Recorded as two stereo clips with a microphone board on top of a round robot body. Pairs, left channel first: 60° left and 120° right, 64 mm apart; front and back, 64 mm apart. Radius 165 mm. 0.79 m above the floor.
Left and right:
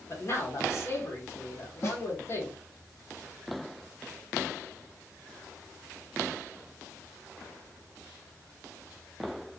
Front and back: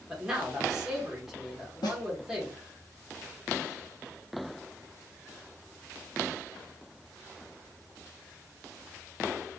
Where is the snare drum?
10° left, 0.8 m.